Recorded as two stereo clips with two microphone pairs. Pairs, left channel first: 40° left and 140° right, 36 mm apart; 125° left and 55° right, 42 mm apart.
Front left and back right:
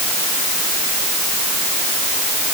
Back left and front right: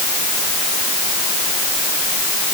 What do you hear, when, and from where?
Only background noise.